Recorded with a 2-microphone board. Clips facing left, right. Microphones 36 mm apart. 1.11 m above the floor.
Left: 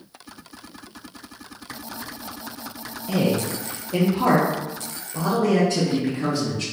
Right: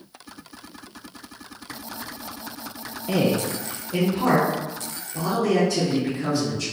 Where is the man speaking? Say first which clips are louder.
Even; 25° right (ahead or behind), 0.5 m; by 6.6 s 45° left (ahead or behind), 2 m.